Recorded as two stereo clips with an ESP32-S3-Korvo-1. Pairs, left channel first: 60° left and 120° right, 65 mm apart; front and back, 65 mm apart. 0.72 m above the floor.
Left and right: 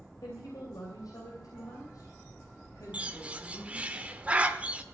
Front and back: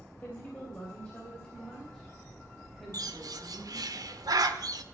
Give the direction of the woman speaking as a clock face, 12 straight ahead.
10 o'clock.